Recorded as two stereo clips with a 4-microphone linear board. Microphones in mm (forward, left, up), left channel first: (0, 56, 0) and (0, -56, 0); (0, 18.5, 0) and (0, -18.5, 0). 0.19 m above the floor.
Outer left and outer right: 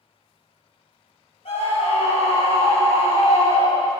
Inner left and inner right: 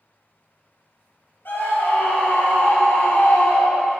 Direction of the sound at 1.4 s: 70° left (ahead or behind).